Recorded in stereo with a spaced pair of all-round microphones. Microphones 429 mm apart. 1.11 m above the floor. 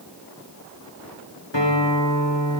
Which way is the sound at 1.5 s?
85° left.